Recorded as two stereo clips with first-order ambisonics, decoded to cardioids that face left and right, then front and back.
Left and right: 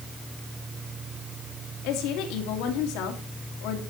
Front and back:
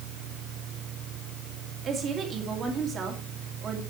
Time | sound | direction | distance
1.8 | a woman speaking | 115° left | 2.5 m